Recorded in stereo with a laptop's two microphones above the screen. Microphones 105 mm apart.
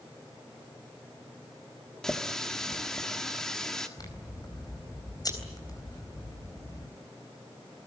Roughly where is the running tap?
Centre.